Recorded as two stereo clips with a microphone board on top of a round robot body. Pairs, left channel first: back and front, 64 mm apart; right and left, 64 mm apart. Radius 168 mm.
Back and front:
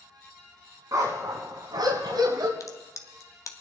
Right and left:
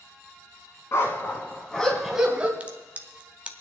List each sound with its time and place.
0.9 s a dog barking: 40° right, 1.7 m; by 2.5 s 20° left, 1.6 m
2.6 s a crack: 160° left, 1.3 m